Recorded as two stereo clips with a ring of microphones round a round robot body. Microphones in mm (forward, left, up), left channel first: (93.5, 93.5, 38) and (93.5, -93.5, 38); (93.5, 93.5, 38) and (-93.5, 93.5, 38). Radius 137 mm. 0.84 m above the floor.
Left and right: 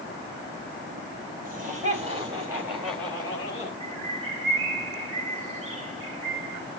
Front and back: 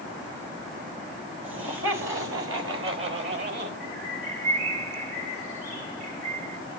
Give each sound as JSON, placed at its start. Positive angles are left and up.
{"t": 1.4, "sound": "laughter", "azimuth_deg": -145, "distance_m": 3.5}
{"t": 3.8, "sound": "a bird", "azimuth_deg": -120, "distance_m": 1.4}